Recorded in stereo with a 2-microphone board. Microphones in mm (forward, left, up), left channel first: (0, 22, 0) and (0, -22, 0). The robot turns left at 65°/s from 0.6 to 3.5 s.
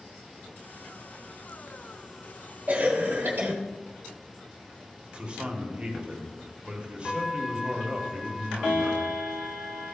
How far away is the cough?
About 1.2 m.